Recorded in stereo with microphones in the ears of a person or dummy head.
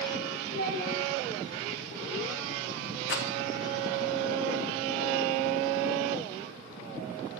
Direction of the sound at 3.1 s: 70° left (ahead or behind).